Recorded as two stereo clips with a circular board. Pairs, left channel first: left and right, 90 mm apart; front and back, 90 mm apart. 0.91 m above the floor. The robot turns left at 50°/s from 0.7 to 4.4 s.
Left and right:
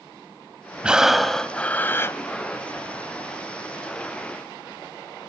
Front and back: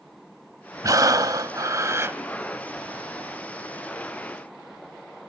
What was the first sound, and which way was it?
Breathing, 160° right.